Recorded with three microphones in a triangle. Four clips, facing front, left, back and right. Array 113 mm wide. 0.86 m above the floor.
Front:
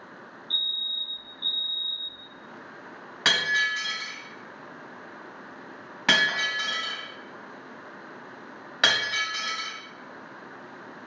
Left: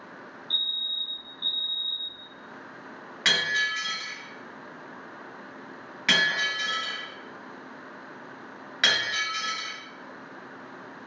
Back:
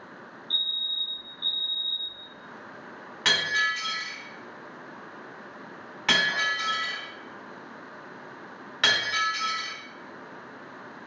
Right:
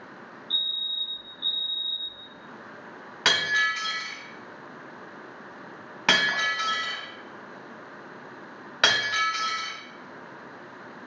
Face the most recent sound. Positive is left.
turn(degrees=-55)